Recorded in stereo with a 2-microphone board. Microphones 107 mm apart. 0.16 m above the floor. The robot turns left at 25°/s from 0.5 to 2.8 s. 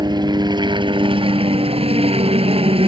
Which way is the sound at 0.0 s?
50° right.